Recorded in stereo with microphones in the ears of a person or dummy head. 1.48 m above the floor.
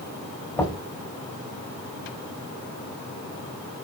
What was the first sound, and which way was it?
Knocking, 5° left (ahead or behind).